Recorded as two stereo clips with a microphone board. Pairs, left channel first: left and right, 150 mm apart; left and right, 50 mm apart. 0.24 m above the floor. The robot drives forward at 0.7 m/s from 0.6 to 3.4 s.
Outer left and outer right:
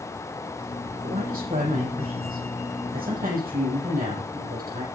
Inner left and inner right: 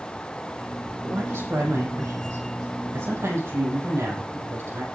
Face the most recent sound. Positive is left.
turn(degrees=-75)  # may be behind; listen again after turning